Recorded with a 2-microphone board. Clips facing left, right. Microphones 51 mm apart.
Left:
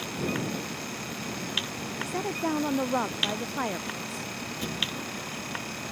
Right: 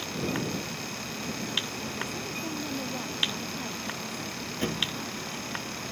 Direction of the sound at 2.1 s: 75° left (ahead or behind).